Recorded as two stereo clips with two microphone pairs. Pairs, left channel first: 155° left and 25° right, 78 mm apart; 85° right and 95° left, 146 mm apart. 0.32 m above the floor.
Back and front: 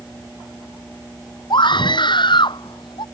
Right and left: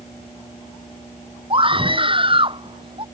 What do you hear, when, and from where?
1.5 s a scream: 150° left